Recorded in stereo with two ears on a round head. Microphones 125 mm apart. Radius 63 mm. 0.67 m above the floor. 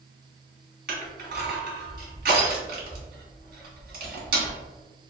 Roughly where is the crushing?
Right.